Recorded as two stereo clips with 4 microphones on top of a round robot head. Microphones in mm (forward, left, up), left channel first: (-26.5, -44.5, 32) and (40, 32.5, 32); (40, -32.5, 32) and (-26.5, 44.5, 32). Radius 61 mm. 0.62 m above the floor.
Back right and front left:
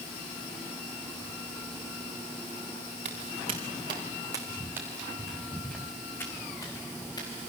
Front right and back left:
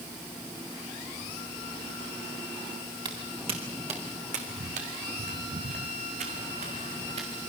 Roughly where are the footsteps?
Left.